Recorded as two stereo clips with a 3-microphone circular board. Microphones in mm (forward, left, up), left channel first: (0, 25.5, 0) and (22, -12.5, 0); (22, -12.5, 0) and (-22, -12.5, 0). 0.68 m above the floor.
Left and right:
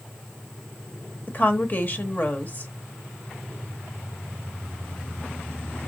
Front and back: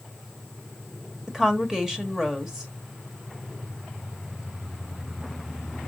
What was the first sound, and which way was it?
A woman speaking, 110° left.